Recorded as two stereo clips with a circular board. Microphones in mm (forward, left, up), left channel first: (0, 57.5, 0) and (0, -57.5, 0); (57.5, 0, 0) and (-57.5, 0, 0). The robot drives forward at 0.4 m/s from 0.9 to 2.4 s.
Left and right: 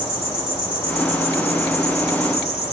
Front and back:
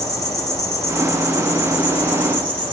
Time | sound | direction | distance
0.0 | an insect | 60° left | 1.8 m